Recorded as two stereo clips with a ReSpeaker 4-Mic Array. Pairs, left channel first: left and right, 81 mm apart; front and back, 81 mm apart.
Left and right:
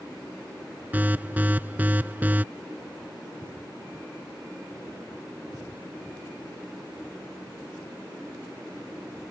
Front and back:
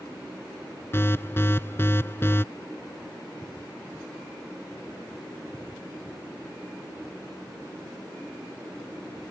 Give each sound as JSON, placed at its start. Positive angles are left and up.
{"t": 0.9, "sound": "an alarm", "azimuth_deg": -35}